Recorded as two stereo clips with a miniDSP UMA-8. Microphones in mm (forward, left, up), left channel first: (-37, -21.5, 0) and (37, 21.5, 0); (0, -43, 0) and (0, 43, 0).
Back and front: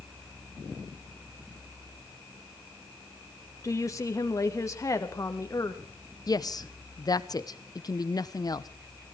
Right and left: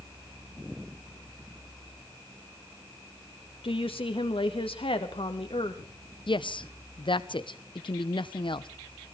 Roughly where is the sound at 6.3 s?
Right.